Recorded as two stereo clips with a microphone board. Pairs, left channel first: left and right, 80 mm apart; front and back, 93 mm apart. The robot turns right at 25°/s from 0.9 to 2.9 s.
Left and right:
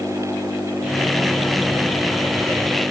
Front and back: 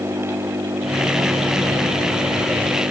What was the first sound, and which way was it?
An engine running, 145° left.